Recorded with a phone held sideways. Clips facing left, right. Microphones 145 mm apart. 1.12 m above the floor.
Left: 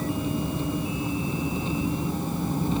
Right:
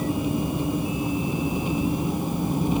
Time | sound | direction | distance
0.0 | an engine running | 15° right (ahead or behind) | ?